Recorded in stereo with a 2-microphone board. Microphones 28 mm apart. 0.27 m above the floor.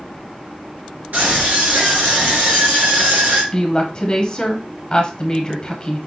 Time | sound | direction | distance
1.1 | a scream | 75° right (ahead or behind) | 3.5 m
3.5 | a woman speaking | 25° left (ahead or behind) | 1.2 m